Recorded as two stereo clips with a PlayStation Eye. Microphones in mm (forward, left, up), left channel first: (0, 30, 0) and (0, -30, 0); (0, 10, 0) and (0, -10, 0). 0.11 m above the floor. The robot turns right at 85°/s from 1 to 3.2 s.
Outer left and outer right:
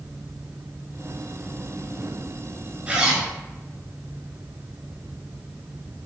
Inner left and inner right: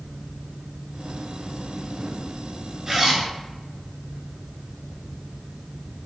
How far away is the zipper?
About 1.1 m.